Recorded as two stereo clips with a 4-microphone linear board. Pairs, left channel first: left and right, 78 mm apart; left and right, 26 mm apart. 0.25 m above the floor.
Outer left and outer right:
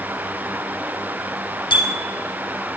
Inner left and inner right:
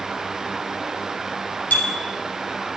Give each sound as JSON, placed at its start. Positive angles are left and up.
{"t": 1.7, "sound": "a bicycle bell", "side_deg": 75, "distance_m": 5.5}